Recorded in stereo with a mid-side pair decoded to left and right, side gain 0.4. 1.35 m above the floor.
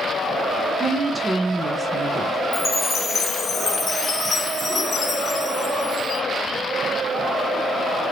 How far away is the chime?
About 1.0 m.